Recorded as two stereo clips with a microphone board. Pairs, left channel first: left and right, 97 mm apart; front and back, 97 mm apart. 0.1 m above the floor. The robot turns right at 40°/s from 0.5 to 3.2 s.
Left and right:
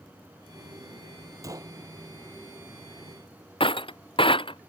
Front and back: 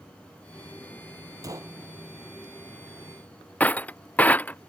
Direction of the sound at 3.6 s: 75° left.